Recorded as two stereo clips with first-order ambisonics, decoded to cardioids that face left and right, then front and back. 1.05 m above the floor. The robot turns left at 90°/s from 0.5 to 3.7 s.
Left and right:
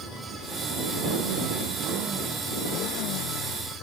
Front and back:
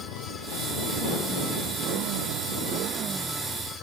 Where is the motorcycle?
Straight ahead; by 3.8 s 50° left.